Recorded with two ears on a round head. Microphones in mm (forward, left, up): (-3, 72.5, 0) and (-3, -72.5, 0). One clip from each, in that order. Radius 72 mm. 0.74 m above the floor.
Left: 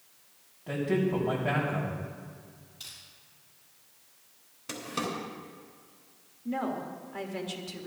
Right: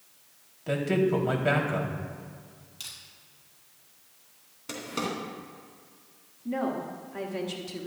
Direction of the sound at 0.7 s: 75° right (ahead or behind).